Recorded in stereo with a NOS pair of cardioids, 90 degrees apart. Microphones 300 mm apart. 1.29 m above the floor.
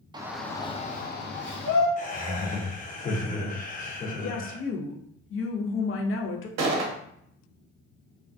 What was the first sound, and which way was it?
A shout, 15° right.